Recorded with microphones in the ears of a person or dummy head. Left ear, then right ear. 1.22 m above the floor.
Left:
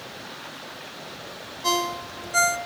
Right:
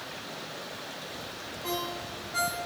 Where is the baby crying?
I don't hear a baby crying.